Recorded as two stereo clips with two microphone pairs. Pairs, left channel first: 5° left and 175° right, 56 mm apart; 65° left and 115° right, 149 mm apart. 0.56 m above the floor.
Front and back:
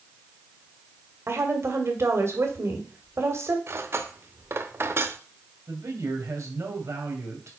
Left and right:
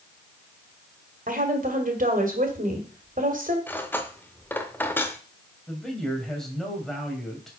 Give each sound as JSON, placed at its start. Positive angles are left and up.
{"t": 1.3, "sound": "a woman speaking", "azimuth_deg": -140, "distance_m": 2.0}
{"t": 3.7, "sound": "cutlery clinking", "azimuth_deg": 145, "distance_m": 0.9}
{"t": 5.7, "sound": "a man speaking", "azimuth_deg": 155, "distance_m": 2.5}